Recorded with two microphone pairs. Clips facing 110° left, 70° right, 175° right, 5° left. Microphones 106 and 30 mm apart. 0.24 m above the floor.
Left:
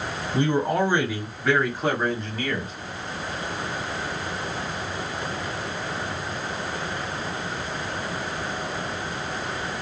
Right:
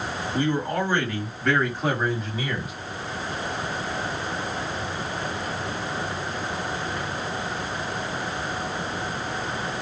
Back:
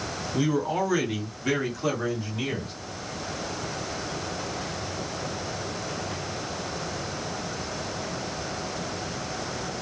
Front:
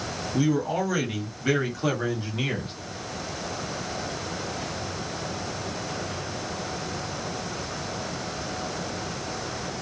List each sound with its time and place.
0.3 s a man speaking: 115° left, 1.3 m; by 2.7 s 5° right, 1.4 m